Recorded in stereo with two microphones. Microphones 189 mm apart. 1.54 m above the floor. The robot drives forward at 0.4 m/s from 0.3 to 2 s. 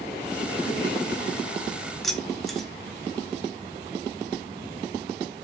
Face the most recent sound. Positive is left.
turn(degrees=0)  # may be behind; listen again after turning